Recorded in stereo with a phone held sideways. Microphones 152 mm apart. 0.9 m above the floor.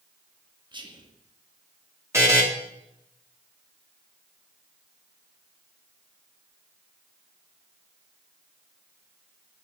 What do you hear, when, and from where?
0.7 s whispering: 30° right (ahead or behind), 1.4 m
2.1 s a buzzer: 20° right (ahead or behind), 2.0 m